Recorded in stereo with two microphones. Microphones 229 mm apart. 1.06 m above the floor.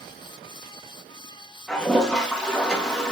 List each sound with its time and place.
1.7 s a toilet flushing: 5° left (ahead or behind), 0.9 m